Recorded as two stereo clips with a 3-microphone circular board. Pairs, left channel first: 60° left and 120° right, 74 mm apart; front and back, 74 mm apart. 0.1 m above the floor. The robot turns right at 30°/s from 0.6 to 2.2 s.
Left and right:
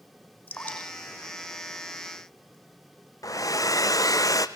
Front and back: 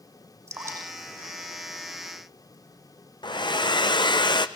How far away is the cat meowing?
No cat meowing in this recording.